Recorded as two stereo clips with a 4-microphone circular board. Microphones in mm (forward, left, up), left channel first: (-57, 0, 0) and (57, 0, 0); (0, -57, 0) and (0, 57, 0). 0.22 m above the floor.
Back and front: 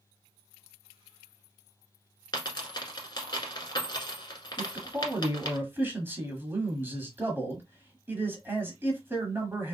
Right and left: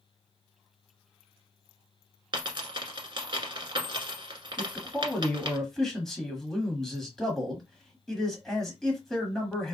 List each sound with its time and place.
2.3 s a dropped coin: 135° left, 1.2 m
4.6 s a man speaking: 10° right, 1.1 m